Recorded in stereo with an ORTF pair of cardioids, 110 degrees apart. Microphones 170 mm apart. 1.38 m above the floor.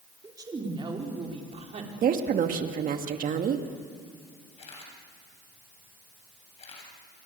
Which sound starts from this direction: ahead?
A woman speaking, at 0.2 s.